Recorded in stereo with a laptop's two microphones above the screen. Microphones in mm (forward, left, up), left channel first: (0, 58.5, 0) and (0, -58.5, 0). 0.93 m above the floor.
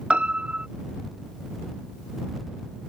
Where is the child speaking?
No child speaking in this recording.